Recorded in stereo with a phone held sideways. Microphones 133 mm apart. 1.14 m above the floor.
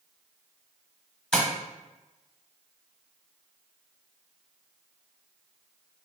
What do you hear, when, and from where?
1.3 s tapping: 5° left (ahead or behind), 1.1 m